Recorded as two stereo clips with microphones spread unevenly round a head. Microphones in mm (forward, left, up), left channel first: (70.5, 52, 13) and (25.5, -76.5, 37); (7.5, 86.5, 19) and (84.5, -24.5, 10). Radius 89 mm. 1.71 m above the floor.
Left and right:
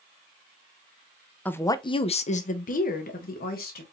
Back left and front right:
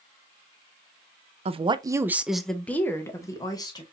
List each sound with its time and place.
1.4 s a woman speaking: 10° right, 0.6 m; by 3.8 s 65° left, 1.2 m